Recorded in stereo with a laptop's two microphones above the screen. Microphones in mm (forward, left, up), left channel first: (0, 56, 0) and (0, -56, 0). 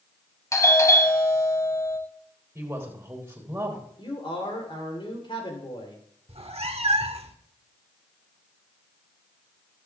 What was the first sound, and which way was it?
A doorbell, 25° left (ahead or behind).